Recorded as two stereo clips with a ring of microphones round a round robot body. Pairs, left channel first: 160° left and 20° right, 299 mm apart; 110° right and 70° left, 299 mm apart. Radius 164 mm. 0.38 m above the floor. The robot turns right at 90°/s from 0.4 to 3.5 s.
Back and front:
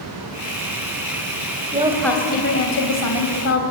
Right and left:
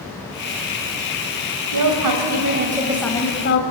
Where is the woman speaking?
40° left, 2.5 m; by 3.6 s 160° right, 2.5 m.